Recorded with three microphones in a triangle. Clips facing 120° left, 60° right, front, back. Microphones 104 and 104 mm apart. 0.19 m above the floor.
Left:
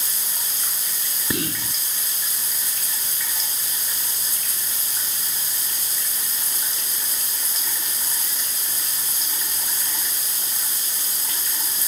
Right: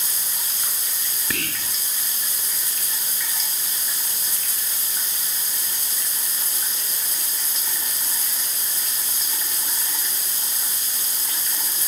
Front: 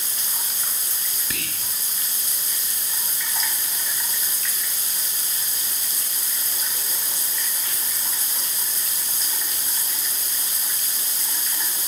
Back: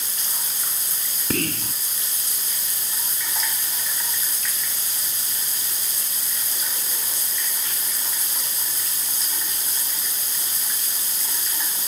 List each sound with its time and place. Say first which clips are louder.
1.3 s whispering: left 5 dB, back 12 dB; straight behind